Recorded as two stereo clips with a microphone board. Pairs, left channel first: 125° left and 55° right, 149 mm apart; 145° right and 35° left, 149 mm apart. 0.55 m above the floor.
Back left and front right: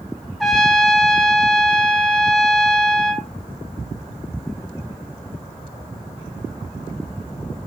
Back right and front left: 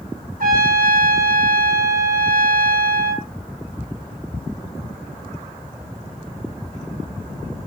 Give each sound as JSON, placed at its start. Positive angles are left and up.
{"t": 0.4, "sound": "a trumpet", "azimuth_deg": 35, "distance_m": 0.7}